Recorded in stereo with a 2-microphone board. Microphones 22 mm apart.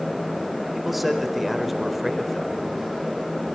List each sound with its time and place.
0.7 s a man speaking: 5° right (ahead or behind), 4.5 m